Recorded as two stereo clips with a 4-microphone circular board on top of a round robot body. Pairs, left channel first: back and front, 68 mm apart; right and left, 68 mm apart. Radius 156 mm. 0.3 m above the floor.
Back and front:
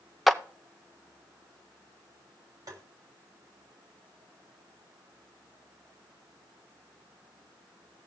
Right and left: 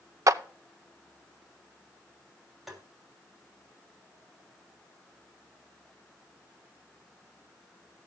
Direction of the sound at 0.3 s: 90° left.